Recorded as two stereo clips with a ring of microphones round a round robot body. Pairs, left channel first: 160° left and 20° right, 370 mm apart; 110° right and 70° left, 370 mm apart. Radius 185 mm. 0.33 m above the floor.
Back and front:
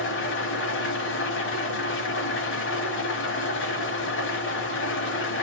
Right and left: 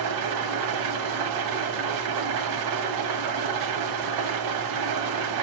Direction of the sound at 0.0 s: 100° left.